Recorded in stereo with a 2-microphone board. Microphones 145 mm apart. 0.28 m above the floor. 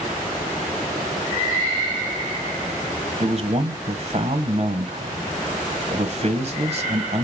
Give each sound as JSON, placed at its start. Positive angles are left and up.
{"t": 3.2, "sound": "a man speaking", "side_deg": -50, "distance_m": 1.3}